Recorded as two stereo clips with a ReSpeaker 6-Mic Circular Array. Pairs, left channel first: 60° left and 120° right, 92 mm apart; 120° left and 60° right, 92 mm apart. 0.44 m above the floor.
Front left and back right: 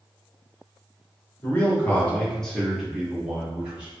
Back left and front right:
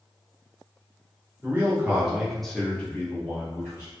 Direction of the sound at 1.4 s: Straight ahead.